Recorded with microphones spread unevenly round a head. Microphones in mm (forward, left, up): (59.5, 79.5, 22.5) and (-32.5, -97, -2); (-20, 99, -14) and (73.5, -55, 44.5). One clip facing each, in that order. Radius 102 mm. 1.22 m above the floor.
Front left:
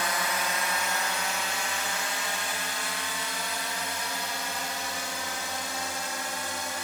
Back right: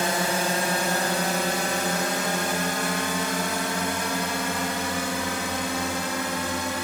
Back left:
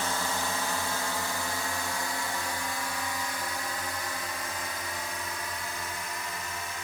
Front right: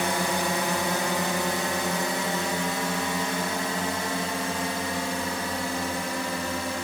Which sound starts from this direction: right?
A drone, at 0.0 s.